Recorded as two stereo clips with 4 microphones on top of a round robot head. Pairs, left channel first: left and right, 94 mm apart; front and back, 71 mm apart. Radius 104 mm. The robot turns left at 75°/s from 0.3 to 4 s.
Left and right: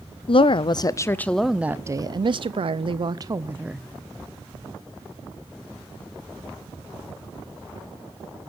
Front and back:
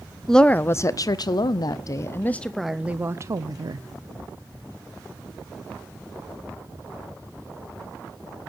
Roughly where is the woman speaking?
Left.